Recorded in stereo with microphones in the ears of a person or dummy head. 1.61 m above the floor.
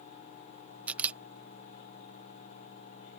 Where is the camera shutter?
15° right (ahead or behind).